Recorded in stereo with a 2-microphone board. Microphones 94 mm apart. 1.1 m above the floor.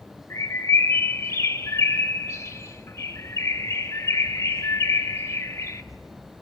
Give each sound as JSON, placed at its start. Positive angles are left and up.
{"t": 0.3, "sound": "a bird", "side_deg": 30, "distance_m": 2.0}